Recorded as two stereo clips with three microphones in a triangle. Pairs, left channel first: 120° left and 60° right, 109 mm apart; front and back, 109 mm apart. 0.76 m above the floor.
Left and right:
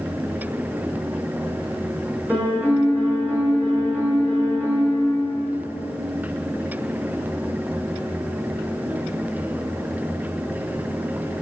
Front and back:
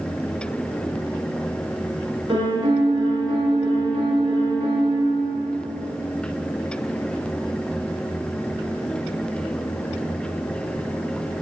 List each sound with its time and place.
2.3 s a piano: 135° right, 5 m